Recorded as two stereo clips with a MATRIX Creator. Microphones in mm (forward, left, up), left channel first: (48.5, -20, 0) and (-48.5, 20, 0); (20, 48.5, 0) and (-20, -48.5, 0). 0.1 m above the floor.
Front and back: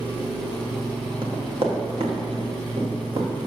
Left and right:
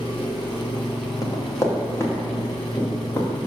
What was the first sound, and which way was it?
An engine running, 110° left.